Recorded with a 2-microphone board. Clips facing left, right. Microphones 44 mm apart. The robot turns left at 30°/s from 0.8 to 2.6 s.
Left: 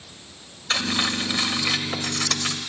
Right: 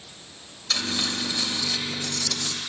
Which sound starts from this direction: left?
Cutlery clinking, at 0.7 s.